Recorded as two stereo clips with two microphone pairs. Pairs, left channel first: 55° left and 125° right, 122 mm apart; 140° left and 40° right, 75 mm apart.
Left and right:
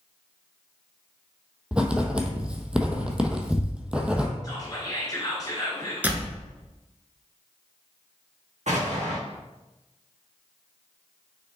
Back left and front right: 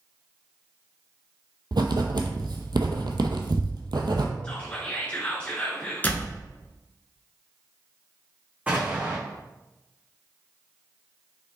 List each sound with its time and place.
1.7 s writing: 40° right, 0.7 m
4.4 s whispering: 85° left, 1.3 m
6.0 s a door slam: 175° left, 0.8 m
8.7 s an explosion: 110° right, 1.7 m